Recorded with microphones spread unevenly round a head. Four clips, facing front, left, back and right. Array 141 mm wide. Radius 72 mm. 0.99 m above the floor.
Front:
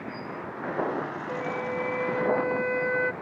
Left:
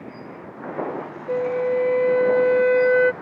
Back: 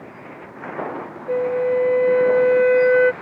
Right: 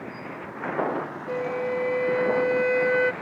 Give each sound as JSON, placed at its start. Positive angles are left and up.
{"t": 1.3, "sound": "a flute", "azimuth_deg": 155}